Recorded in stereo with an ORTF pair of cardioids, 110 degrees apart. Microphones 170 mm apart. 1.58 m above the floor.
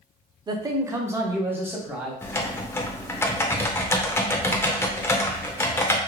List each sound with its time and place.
0.5 s a man speaking: 25° right, 0.5 m; by 2.1 s 10° right, 1.5 m
2.2 s typing on a keyboard: 15° left, 0.6 m